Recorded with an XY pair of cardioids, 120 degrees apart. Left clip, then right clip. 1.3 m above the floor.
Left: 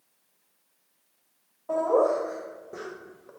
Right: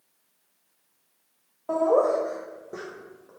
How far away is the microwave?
I don't hear a microwave.